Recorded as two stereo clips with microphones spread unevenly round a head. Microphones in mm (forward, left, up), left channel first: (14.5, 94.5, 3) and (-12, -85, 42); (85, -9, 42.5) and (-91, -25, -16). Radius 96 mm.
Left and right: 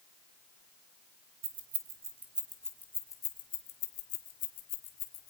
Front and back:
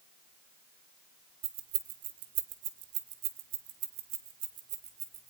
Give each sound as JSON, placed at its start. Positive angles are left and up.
{"t": 1.4, "sound": "keys jangling", "azimuth_deg": -155, "distance_m": 2.0}